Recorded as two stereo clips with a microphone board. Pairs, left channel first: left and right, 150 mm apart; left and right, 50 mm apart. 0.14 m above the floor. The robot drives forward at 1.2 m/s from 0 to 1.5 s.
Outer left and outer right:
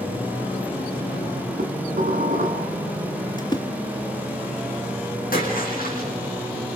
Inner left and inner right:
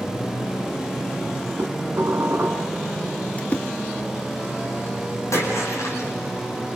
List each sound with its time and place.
1.6 s dishes clattering: 55° right (ahead or behind), 4 m
3.4 s a splash: 30° left (ahead or behind), 1.4 m
5.3 s a splash: 70° left (ahead or behind), 8 m